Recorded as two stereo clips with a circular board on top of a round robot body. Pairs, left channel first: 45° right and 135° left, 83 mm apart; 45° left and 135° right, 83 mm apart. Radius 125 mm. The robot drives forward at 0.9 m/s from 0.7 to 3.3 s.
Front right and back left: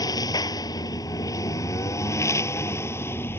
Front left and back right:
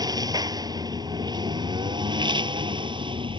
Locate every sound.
0.0 s a lawn mower: 90° right; by 3.4 s 110° right